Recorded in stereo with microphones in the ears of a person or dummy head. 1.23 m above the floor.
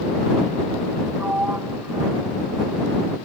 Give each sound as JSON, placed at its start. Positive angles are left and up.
{"t": 1.2, "sound": "a sliding door", "side_deg": -10}